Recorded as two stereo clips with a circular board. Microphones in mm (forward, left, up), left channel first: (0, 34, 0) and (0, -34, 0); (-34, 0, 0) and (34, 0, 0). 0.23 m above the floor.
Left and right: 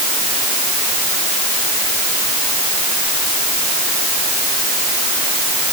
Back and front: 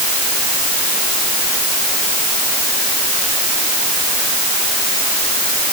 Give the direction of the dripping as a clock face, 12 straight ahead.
I don't hear dripping.